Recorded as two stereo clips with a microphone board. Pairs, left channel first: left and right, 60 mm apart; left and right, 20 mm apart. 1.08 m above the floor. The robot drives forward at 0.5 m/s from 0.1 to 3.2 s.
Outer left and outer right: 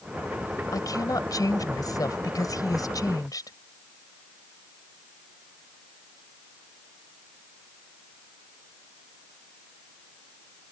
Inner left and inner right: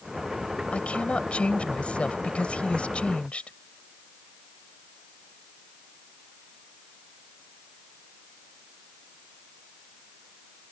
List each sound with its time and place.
0.7 s a woman speaking: 85° left; by 3.5 s 80° left